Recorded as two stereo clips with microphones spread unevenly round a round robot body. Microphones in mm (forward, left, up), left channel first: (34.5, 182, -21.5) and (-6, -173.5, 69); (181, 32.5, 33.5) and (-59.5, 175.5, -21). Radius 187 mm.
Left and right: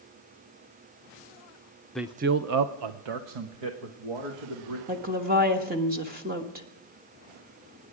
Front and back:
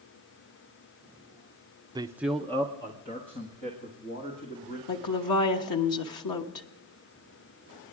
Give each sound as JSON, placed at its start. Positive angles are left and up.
{"t": 1.9, "sound": "a man speaking", "azimuth_deg": 135, "distance_m": 0.6}
{"t": 4.9, "sound": "a woman speaking", "azimuth_deg": -25, "distance_m": 1.3}